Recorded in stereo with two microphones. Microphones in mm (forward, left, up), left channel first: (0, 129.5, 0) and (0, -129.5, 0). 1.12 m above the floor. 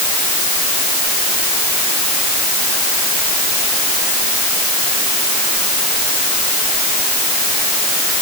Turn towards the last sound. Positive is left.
No sound to turn to.